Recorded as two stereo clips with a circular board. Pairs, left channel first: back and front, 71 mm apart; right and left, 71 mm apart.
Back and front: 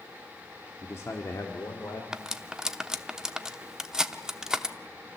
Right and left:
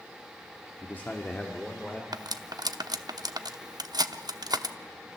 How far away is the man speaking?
About 1.2 m.